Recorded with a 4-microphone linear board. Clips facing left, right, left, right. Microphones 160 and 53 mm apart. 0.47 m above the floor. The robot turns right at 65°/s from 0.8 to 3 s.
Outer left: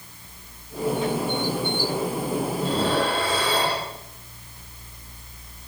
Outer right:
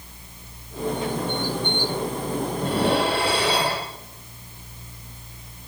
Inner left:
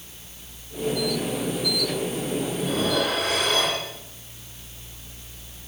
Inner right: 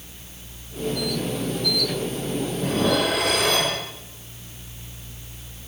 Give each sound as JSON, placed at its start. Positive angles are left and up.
{"t": 2.6, "sound": "dishes clattering", "side_deg": -50, "distance_m": 8.0}